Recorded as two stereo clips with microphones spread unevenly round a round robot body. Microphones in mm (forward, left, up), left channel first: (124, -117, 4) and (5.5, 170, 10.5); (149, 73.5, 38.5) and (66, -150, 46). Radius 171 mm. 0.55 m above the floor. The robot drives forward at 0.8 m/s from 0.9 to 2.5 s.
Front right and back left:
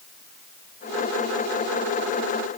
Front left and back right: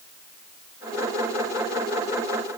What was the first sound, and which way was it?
Only background noise.